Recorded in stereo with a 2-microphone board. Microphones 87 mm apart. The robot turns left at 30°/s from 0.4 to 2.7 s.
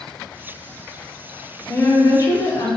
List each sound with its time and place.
1.7 s a woman speaking: 30° left (ahead or behind), 0.6 m; by 2.7 s 40° left (ahead or behind), 0.6 m